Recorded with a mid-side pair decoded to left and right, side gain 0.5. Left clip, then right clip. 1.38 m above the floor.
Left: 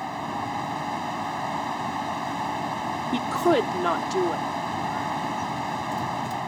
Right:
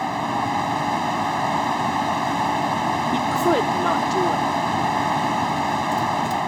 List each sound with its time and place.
0.0 s a fan: 40° right
3.1 s a woman speaking: 5° left